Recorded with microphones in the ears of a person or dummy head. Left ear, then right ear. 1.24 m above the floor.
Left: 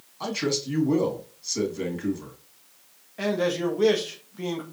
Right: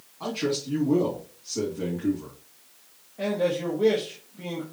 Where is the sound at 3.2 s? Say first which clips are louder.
Left 1 dB; 65° left (ahead or behind), 1.2 m.